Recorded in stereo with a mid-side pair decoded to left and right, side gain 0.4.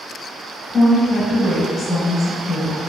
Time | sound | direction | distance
0.7 | a woman speaking | 50° left | 1.1 m